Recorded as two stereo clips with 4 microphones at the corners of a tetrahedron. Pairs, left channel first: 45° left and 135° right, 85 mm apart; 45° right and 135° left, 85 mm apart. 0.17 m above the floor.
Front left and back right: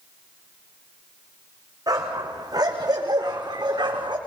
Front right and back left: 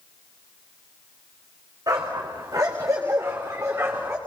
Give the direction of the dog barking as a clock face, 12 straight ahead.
6 o'clock.